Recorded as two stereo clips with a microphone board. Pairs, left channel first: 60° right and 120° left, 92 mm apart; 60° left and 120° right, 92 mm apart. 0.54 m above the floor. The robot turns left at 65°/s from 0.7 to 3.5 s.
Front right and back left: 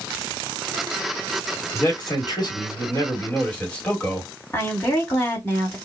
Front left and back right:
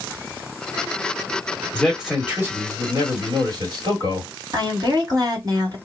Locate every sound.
1.7 s a man speaking: 20° right, 1.4 m; by 4.3 s 135° right, 1.4 m
4.5 s a woman speaking: 115° right, 1.6 m